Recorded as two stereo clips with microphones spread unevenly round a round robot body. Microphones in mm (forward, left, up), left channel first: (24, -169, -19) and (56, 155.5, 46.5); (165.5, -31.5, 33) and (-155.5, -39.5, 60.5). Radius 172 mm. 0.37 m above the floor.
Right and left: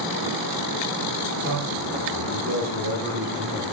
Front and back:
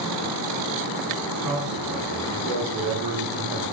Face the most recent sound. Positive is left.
turn(degrees=160)